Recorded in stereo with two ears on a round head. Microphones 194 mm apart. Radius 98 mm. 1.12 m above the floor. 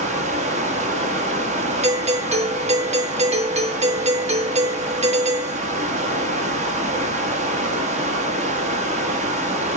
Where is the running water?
35° right (ahead or behind), 1.5 m.